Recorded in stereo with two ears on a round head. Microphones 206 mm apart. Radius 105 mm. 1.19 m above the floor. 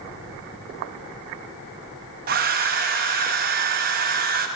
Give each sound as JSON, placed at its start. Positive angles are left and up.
{"t": 2.3, "sound": "a hair dryer", "side_deg": -40, "distance_m": 0.7}